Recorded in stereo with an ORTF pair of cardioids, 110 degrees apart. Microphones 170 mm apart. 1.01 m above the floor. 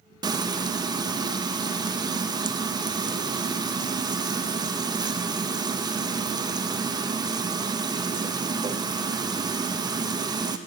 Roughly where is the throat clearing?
No throat clearing in this recording.